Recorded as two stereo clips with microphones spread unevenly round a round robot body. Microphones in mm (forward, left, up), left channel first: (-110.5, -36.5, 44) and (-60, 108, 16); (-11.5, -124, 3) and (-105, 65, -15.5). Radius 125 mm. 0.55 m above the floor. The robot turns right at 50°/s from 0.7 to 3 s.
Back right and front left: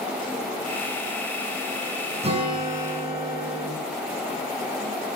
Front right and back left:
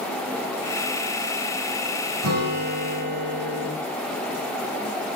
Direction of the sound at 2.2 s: 120° left.